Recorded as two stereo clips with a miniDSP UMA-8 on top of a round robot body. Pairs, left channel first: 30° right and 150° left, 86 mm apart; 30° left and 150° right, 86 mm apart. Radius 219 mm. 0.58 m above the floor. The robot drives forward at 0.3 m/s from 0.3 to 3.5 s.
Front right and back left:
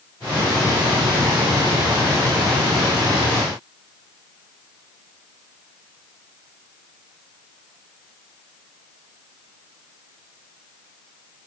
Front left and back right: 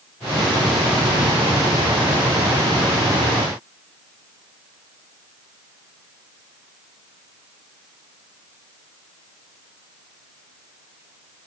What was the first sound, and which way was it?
Only background noise.